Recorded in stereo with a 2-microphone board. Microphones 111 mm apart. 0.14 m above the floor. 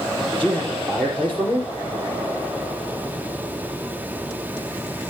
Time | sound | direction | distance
0.3 | a man speaking | 10° left (ahead or behind) | 4 m